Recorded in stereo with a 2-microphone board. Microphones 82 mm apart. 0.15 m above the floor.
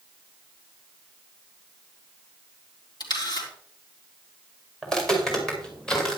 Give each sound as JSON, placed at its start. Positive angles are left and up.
{"t": 3.0, "sound": "a camera shutter", "side_deg": 65, "distance_m": 4.0}
{"t": 4.8, "sound": "footsteps", "side_deg": 5, "distance_m": 4.5}